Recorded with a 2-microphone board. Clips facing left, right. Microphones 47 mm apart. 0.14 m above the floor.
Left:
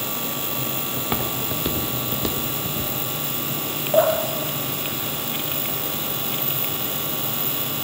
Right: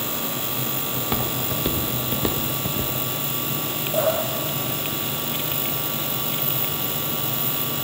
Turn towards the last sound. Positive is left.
turn(degrees=50)  # may be behind; listen again after turning